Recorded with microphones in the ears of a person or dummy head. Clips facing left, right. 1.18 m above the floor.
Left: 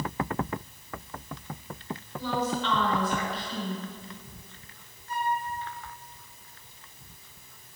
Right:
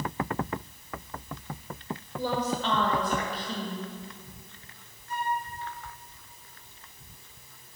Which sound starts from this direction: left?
A flute, at 5.1 s.